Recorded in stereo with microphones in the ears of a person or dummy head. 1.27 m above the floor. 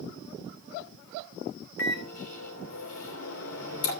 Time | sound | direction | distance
1.8 | a microwave | 70° left (ahead or behind) | 3 m